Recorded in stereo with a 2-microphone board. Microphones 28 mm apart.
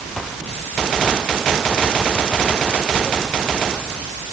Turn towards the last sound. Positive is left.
No sound to turn to.